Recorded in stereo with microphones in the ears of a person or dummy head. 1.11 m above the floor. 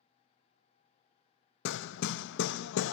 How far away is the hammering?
About 0.5 m.